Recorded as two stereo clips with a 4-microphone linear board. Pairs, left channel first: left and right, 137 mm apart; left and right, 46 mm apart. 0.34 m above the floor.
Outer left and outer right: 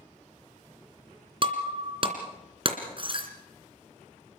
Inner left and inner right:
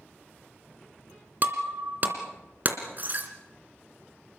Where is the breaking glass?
40° right (ahead or behind), 2.5 m.